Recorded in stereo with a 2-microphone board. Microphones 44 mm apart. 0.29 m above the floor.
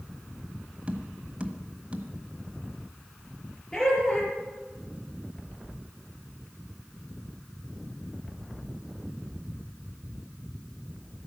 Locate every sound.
0.9 s tapping: 25° right (ahead or behind), 1.5 m
3.7 s laughter: 15° left (ahead or behind), 6 m